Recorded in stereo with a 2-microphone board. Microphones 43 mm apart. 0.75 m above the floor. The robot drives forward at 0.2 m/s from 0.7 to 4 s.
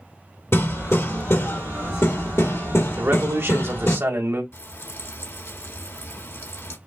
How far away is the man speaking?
About 1.7 m.